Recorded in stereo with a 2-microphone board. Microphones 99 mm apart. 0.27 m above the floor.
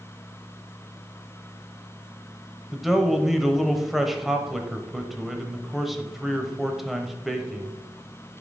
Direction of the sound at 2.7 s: Centre (ahead or behind).